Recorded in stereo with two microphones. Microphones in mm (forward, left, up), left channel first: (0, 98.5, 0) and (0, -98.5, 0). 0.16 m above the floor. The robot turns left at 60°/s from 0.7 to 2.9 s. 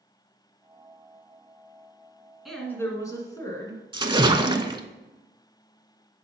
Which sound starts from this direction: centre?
A woman speaking, at 2.5 s.